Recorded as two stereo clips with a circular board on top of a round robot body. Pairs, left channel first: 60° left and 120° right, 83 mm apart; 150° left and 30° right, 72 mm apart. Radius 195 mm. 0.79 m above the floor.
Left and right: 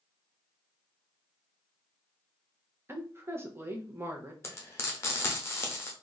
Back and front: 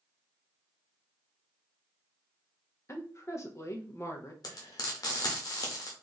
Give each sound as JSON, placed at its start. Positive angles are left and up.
{"t": 2.9, "sound": "a woman speaking", "azimuth_deg": -175, "distance_m": 1.1}
{"t": 4.4, "sound": "frying", "azimuth_deg": 120, "distance_m": 0.6}